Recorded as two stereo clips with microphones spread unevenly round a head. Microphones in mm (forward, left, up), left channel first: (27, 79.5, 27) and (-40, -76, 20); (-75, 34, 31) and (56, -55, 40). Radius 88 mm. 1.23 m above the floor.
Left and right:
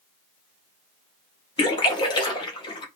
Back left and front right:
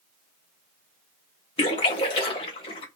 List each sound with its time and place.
1.6 s a splash: 100° left, 0.6 m